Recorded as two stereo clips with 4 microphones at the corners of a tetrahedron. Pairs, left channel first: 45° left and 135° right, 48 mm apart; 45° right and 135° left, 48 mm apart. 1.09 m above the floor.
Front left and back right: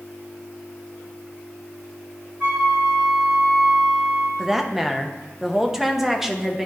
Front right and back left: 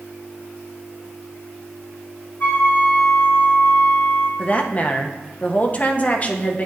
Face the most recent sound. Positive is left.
turn(degrees=-60)